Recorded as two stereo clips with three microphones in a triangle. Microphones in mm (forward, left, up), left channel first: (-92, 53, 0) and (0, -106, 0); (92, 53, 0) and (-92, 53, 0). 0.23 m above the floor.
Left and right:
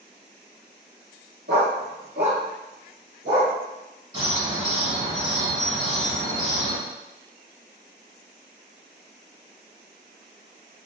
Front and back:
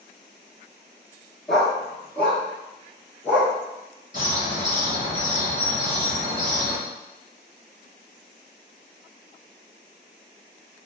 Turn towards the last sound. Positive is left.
turn(degrees=-30)